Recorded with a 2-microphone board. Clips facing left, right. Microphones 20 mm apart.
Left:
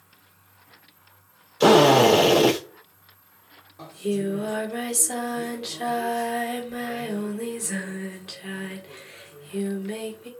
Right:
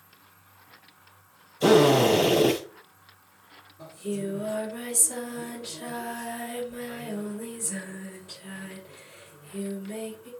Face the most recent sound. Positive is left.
turn(degrees=80)